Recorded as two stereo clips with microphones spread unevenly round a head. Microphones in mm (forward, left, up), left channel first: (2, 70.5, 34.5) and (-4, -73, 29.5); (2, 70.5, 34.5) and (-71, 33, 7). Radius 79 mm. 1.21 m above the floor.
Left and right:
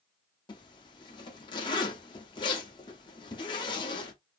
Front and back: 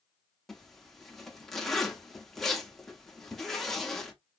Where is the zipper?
75° left, 0.8 m.